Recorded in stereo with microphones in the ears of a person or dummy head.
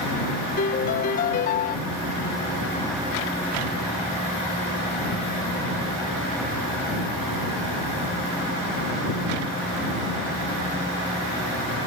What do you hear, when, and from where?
0.6 s a piano: 45° left (ahead or behind)